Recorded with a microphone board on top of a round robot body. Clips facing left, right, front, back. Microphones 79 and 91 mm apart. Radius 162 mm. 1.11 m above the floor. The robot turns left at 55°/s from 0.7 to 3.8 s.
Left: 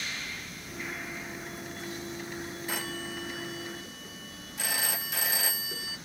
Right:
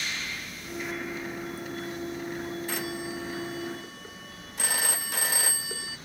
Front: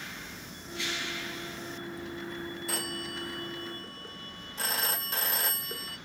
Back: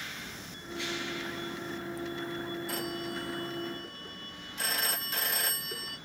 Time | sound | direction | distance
2.7 | a phone ringing | 5° left | 1.6 m